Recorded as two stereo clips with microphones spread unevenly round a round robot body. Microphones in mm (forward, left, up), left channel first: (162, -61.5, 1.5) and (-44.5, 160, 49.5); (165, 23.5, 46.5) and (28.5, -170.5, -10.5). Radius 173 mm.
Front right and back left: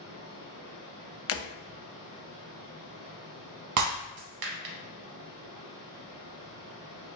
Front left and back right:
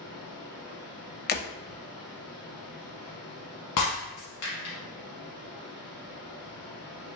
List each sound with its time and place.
0.0 s running water: 120° left, 1.8 m
1.3 s breaking glass: straight ahead, 0.7 m
3.8 s breaking glass: 105° left, 0.9 m